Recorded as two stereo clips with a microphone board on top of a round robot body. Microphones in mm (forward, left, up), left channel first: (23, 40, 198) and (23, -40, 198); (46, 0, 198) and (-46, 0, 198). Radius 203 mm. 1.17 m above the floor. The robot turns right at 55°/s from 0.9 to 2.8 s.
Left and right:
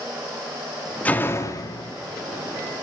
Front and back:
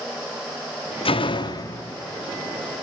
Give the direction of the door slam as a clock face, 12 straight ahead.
11 o'clock.